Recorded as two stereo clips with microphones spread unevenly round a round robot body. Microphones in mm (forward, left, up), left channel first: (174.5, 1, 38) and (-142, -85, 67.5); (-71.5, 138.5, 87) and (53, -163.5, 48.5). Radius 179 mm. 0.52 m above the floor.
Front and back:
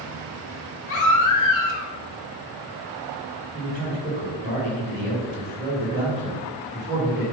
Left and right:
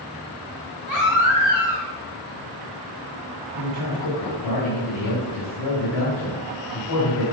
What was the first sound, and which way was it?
A baby crying, 50° left.